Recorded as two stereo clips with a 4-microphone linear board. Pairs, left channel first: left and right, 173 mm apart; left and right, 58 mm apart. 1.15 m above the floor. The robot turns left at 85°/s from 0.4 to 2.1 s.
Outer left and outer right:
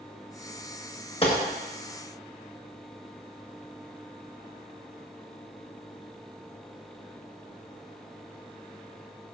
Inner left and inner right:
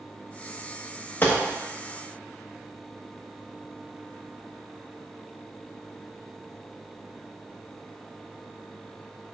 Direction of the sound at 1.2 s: 35° left (ahead or behind).